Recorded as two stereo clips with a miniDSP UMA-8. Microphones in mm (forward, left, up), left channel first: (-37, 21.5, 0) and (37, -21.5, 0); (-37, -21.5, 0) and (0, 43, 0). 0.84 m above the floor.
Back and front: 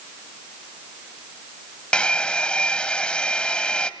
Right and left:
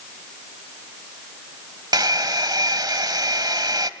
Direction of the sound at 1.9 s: 75° left.